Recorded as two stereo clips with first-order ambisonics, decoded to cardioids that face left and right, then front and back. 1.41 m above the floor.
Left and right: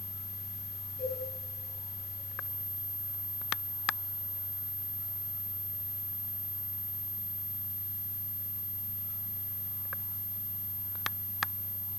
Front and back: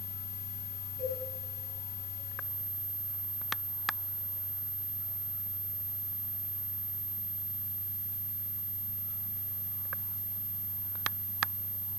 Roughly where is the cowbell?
Behind left.